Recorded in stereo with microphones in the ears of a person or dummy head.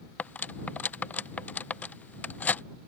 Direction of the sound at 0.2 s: 5° left (ahead or behind).